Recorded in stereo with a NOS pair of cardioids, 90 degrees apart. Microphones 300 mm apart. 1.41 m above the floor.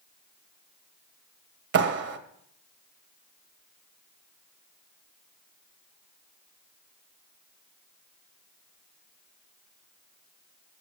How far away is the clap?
About 1.7 m.